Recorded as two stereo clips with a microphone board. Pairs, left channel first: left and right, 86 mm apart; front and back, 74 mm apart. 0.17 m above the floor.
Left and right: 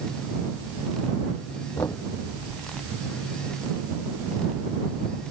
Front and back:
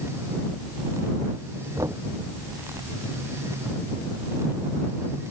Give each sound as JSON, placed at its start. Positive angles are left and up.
{"t": 1.8, "sound": "knocking", "azimuth_deg": 140}